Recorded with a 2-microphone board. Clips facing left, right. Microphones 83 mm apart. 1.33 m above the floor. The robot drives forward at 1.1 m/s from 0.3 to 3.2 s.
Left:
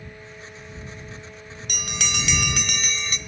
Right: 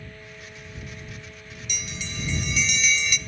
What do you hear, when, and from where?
1.7 s a bell: 55° left (ahead or behind), 1.0 m; by 3.2 s 35° left (ahead or behind), 1.4 m